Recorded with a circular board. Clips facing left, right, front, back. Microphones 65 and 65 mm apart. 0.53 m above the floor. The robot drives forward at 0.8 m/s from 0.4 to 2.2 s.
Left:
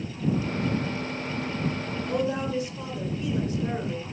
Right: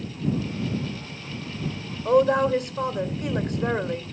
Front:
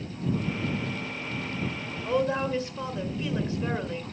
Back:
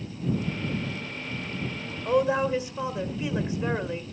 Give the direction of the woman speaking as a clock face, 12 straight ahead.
4 o'clock.